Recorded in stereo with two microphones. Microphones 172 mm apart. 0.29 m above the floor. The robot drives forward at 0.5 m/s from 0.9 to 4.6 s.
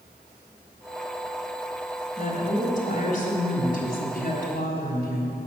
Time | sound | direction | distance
2.2 | a woman speaking | 45° left (ahead or behind) | 2.5 m